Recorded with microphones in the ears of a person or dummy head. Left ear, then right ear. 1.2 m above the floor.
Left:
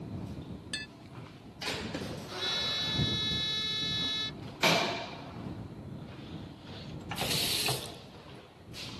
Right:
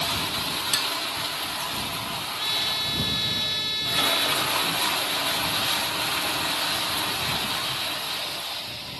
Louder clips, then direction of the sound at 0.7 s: Right 12 dB; 40° right (ahead or behind).